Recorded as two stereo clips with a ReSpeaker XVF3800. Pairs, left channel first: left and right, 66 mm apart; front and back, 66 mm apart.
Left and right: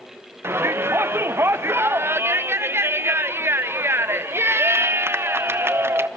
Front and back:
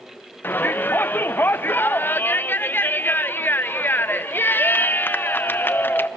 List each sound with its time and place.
0.4 s a shout: 50° right, 0.8 m